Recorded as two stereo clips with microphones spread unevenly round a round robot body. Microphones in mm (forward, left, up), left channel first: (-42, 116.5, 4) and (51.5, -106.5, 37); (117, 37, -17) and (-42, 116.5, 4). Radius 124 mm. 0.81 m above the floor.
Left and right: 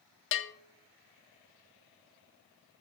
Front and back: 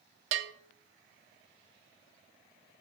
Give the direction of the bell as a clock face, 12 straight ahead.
7 o'clock.